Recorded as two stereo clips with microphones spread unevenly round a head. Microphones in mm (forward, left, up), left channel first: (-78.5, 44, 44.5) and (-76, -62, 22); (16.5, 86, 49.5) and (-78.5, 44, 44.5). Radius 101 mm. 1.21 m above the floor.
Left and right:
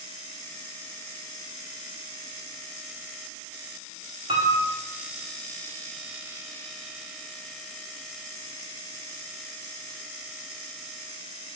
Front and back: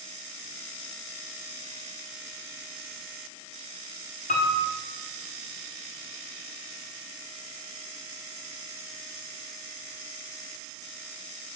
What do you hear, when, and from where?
4.3 s a piano: 20° right, 1.4 m